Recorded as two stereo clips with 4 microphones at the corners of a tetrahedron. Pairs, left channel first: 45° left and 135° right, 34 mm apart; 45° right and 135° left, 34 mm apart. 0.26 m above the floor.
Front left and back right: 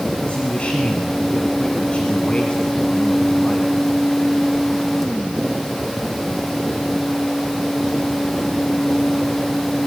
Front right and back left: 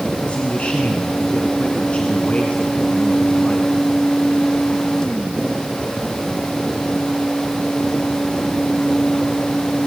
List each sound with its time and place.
0.3 s a man speaking: straight ahead, 2.5 m